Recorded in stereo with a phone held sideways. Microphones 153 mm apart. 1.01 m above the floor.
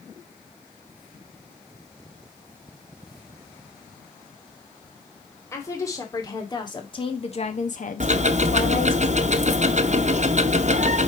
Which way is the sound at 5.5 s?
20° left (ahead or behind).